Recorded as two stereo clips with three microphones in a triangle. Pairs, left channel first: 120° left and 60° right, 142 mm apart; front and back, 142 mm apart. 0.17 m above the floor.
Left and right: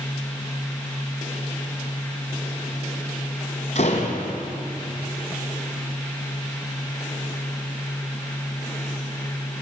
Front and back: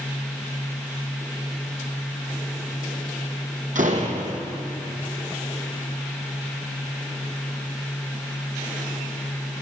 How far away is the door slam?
About 4.5 m.